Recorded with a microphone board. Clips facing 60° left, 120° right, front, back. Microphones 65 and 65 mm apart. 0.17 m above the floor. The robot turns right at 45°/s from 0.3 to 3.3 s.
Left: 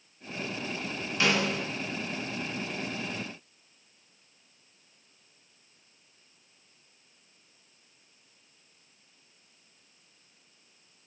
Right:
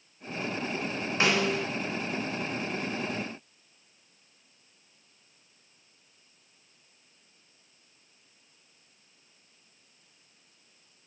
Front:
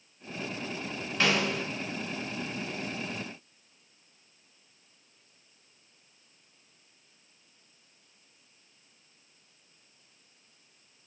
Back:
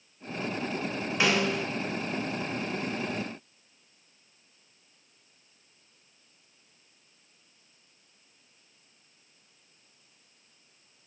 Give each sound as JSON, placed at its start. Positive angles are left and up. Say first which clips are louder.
{"t": 1.2, "sound": "a snare drum", "louder": "right 1 dB, back 1 dB", "azimuth_deg": -110, "distance_m": 0.8}